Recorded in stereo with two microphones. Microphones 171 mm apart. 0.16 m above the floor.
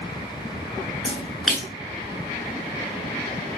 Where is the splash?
Centre (ahead or behind), 1.0 m.